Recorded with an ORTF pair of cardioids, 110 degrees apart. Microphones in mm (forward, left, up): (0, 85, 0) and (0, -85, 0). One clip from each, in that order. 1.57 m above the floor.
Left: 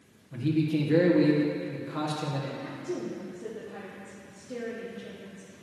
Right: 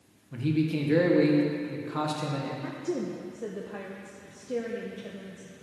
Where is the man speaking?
10° right, 1.6 m.